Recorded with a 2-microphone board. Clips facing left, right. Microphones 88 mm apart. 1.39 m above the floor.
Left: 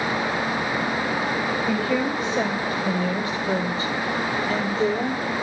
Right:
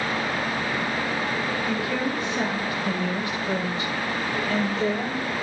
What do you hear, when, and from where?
1.7 s a woman speaking: 25° left (ahead or behind), 6.5 m; by 5.2 s 30° left (ahead or behind), 3.5 m